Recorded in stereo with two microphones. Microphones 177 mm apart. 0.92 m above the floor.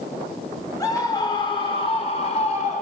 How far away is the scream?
About 3.5 m.